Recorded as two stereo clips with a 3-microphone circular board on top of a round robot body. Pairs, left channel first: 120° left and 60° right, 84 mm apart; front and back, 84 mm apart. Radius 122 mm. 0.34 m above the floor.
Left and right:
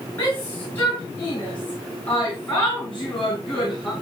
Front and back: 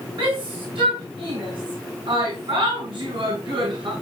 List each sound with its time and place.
0.2 s a shout: 175° right, 6.5 m; by 3.9 s 160° right, 6.5 m